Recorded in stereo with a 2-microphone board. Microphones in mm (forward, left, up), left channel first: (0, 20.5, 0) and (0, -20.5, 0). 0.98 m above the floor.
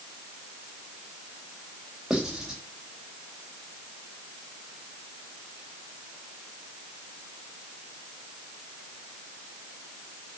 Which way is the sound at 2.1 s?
15° right (ahead or behind).